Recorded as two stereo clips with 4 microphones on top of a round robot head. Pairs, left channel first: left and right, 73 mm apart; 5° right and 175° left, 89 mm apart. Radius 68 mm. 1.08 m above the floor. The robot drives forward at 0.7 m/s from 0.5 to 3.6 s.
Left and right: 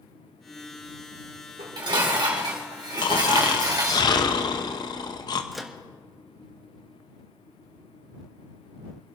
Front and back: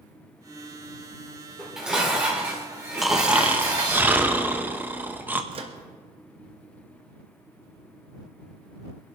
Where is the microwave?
Straight behind, 1.5 m.